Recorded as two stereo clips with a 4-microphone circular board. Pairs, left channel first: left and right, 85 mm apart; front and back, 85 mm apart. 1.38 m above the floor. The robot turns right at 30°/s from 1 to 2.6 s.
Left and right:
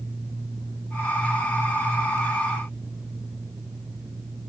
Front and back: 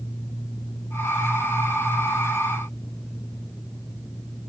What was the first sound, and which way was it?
Only background noise.